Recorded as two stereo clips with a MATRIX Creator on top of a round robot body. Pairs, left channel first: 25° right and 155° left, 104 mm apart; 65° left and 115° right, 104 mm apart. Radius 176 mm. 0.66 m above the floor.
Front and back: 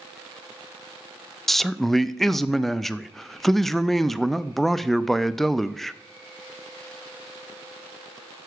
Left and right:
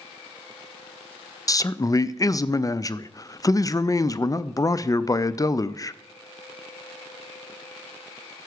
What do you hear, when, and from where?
1.5 s a man speaking: 65° left, 0.5 m